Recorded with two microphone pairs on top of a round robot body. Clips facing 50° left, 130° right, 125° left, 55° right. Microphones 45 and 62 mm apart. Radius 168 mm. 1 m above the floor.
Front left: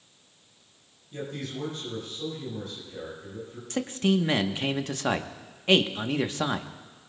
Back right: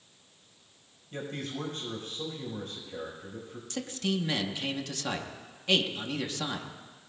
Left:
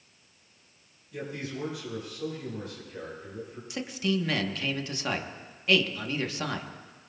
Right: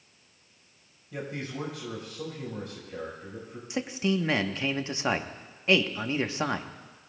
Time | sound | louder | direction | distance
1.1 | a man speaking | front left 1 dB, right 1 dB | 85° right | 4.5 m
3.7 | a man speaking | front left 7 dB, right 2 dB | 10° left | 1.1 m